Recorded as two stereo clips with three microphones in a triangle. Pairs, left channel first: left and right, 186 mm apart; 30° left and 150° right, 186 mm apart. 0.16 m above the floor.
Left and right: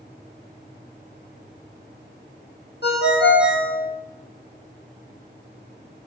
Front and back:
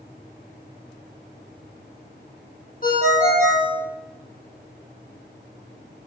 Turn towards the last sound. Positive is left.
turn(degrees=70)